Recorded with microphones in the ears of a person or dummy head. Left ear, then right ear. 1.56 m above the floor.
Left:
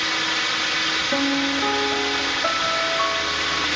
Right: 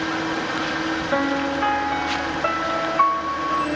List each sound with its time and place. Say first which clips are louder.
0.0 s a drone: left 3 dB; 60° left (ahead or behind)
1.1 s a piano: even; 85° right